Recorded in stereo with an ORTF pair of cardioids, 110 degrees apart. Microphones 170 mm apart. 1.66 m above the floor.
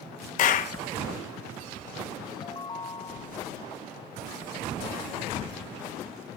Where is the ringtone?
25° left.